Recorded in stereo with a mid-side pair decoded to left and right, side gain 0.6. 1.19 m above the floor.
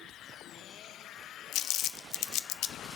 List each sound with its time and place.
1.5 s crumpling: 60° left, 0.5 m